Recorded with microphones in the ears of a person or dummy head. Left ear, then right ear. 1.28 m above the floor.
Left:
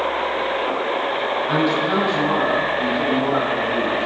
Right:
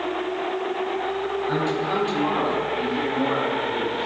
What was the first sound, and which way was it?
A man speaking, centre (ahead or behind).